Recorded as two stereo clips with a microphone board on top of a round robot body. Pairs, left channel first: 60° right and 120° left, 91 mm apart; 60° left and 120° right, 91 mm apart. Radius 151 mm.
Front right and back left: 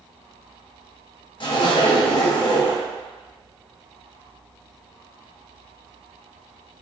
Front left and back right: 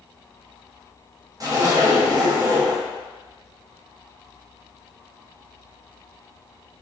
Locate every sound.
1.4 s a zipper: 80° right, 1.2 m